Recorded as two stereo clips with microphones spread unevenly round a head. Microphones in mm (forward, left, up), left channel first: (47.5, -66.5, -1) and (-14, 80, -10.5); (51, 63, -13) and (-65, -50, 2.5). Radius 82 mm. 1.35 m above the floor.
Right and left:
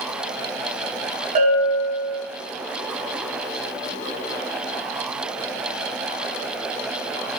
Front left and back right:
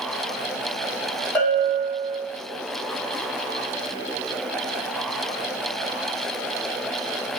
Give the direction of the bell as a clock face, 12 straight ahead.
8 o'clock.